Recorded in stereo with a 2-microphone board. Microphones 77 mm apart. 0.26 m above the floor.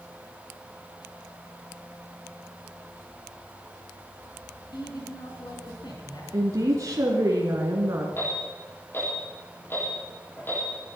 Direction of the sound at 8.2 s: 30° left (ahead or behind).